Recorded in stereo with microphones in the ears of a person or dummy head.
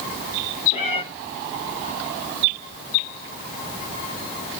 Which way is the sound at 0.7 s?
35° left (ahead or behind).